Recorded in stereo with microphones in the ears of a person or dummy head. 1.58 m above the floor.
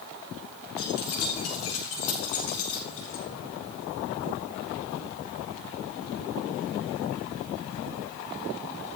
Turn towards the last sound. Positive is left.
turn(degrees=75)  # may be behind; listen again after turning